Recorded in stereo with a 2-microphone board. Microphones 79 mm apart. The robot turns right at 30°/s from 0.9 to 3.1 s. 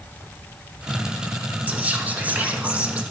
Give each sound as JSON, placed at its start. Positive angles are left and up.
{"t": 1.7, "sound": "whispering", "side_deg": -20, "distance_m": 1.1}